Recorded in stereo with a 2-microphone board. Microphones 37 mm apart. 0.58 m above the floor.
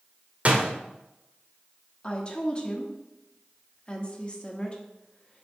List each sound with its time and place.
0.5 s a door slam: 45° right (ahead or behind), 1.0 m
2.0 s a woman speaking: 25° left (ahead or behind), 1.1 m